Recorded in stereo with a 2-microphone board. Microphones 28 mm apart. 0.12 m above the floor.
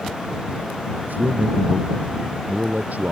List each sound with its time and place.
1.1 s a man speaking: 75° right (ahead or behind); by 3.1 s 70° right (ahead or behind)